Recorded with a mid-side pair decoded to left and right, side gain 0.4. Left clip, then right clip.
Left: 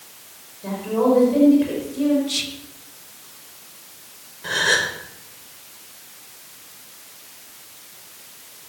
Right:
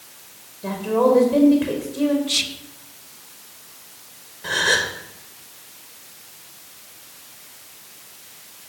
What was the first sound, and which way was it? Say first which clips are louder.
A woman speaking: right 2 dB; 45° right.